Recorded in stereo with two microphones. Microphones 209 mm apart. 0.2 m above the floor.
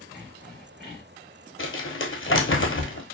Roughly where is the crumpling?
Left.